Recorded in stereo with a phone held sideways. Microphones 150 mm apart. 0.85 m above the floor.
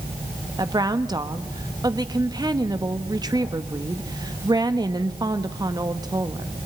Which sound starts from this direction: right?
A woman speaking, at 0.6 s.